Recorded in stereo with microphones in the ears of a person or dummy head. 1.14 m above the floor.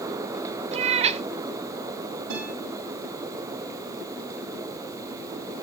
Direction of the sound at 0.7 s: 35° right (ahead or behind).